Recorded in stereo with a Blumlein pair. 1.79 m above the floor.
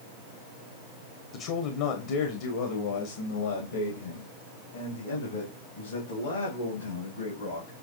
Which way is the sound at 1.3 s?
40° left.